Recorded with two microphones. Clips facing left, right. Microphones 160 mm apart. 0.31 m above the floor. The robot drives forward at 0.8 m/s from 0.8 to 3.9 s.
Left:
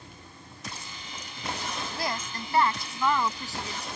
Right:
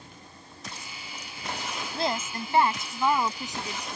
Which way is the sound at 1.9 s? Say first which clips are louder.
Right 7 dB; 30° right (ahead or behind).